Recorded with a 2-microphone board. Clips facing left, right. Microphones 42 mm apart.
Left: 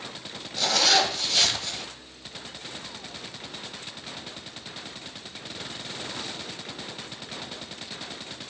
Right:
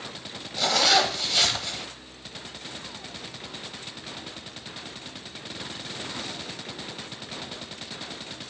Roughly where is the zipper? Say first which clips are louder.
Right 1 dB; centre.